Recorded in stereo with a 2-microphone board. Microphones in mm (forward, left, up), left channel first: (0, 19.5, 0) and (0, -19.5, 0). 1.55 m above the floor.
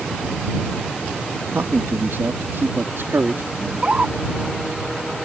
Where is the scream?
30° right (ahead or behind).